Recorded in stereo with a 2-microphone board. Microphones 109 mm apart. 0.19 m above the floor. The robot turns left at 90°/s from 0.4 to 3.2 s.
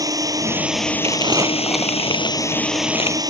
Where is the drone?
145° right; by 3.3 s 35° right.